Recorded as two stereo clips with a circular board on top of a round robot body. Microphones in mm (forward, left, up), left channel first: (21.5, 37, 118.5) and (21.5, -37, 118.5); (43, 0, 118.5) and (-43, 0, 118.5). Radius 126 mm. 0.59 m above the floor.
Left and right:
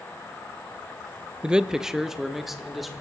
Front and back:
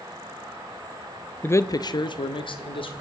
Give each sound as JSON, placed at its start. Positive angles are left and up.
{"t": 1.4, "sound": "a man speaking", "azimuth_deg": -30, "distance_m": 0.5}